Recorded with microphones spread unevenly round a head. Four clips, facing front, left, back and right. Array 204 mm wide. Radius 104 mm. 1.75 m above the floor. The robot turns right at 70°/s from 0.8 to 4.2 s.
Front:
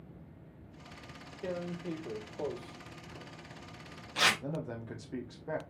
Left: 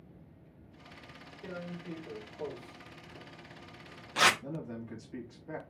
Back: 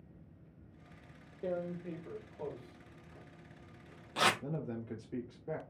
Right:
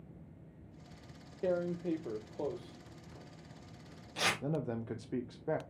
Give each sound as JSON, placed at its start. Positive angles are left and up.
{"t": 1.4, "sound": "tearing paper", "azimuth_deg": -100, "distance_m": 0.8}
{"t": 4.4, "sound": "a man speaking", "azimuth_deg": -80, "distance_m": 0.9}